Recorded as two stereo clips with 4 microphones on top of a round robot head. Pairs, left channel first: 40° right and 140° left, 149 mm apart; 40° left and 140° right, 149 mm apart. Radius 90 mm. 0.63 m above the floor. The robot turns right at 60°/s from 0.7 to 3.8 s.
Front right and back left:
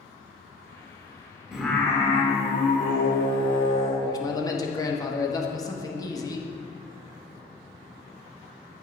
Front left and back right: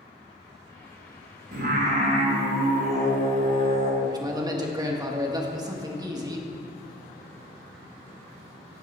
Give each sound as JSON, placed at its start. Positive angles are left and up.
{"t": 1.5, "sound": "singing", "azimuth_deg": -135, "distance_m": 1.8}
{"t": 4.0, "sound": "a man speaking", "azimuth_deg": -90, "distance_m": 1.4}